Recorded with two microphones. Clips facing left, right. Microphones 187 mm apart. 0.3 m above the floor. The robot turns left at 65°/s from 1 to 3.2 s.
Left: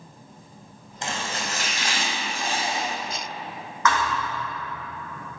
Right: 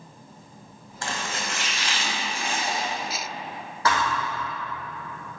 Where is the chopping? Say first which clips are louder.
Left 1 dB; 155° left, 2.0 m; by 2.9 s 30° left, 2.0 m.